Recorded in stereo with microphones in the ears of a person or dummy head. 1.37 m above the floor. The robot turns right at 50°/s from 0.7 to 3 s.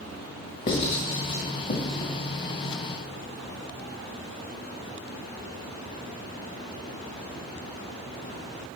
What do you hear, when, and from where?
0.7 s writing: 40° left (ahead or behind), 1.4 m; by 2.1 s 20° left (ahead or behind), 1.4 m